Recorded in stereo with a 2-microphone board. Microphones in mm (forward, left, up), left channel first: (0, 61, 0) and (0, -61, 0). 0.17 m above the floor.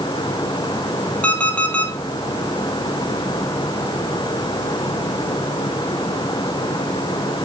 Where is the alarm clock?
10° left (ahead or behind), 3 m.